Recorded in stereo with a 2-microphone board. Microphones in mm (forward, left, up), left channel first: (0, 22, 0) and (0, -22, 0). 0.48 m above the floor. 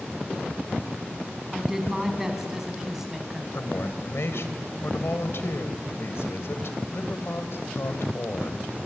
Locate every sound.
1.5 s a woman speaking: 10° right (ahead or behind), 4.5 m
3.5 s a woman speaking: 65° left (ahead or behind), 2 m